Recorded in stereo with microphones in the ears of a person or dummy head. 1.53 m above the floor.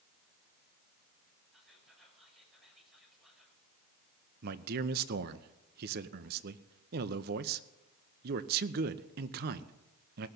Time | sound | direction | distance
1.5 | whispering | 5° right (ahead or behind) | 6 m
4.4 | a man speaking | 55° right (ahead or behind) | 0.8 m